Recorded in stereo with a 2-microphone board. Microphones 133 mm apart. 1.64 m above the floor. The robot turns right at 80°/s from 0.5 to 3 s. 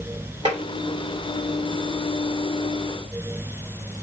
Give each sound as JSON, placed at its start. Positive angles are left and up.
{"t": 0.5, "sound": "tapping", "side_deg": -45, "distance_m": 1.8}